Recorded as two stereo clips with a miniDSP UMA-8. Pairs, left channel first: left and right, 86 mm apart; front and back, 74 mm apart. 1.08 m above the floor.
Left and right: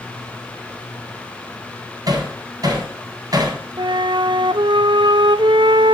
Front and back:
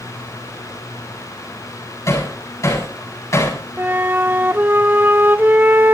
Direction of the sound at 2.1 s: 45° right.